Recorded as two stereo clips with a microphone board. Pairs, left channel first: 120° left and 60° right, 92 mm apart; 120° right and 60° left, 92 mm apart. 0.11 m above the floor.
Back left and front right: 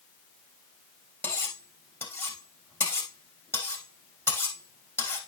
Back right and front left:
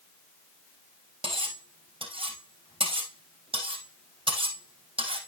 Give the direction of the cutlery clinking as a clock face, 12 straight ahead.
10 o'clock.